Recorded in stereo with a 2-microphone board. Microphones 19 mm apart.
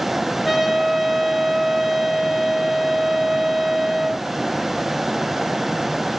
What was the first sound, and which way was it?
A trumpet, 10° right (ahead or behind).